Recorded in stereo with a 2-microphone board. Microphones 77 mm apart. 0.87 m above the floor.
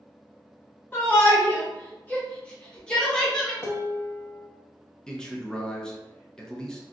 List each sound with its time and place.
0.9 s a shout: 25° left (ahead or behind), 0.9 m; by 3.5 s 10° left (ahead or behind), 1.7 m
3.6 s dishes clattering: 30° left (ahead or behind), 0.7 m
5.1 s a man speaking: 10° left (ahead or behind), 0.6 m